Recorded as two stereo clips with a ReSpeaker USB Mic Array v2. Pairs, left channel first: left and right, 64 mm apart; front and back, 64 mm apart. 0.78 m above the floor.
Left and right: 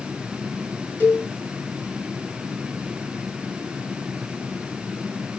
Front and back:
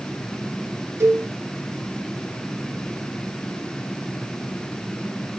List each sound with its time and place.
1.0 s a cowbell: 145° left, 2 m